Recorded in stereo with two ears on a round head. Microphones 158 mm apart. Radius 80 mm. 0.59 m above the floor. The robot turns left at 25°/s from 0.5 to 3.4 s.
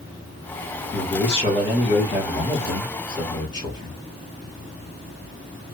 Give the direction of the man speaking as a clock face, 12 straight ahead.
8 o'clock.